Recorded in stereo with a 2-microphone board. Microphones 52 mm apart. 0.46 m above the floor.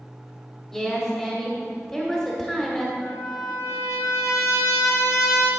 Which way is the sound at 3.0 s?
75° left (ahead or behind).